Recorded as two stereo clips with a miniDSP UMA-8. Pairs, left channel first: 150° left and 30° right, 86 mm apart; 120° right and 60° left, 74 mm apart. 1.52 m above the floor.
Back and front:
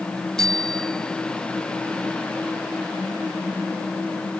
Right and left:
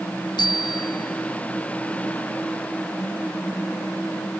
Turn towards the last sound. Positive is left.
turn(degrees=-125)